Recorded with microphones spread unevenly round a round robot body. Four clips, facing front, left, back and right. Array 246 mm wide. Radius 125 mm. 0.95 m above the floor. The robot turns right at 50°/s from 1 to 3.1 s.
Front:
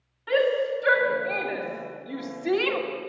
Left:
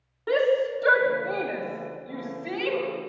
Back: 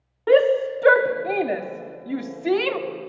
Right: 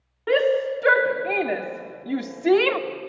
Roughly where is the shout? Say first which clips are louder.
Right 2 dB, back 6 dB; behind.